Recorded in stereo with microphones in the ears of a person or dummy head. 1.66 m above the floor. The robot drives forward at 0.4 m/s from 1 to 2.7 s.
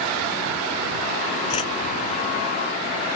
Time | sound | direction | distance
1.5 | a whoosh | 30° left (ahead or behind) | ?